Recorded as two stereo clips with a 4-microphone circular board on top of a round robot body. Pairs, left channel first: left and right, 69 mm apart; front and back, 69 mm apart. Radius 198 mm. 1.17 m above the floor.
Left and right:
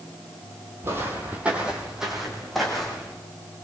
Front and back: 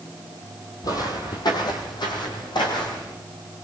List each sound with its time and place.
0.8 s footsteps: 35° right, 1.8 m; by 3.1 s 5° left, 3 m